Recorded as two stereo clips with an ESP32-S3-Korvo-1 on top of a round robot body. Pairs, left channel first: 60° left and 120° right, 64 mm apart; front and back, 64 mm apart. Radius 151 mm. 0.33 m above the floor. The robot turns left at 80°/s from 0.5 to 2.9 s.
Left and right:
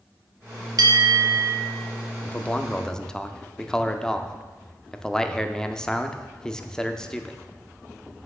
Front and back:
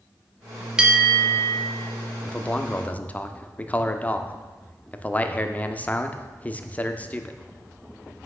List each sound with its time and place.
0.8 s a bell: 105° right, 1.3 m; by 1.5 s 165° right, 1.3 m
2.2 s a man speaking: 50° left, 0.8 m; by 7.4 s 5° right, 0.8 m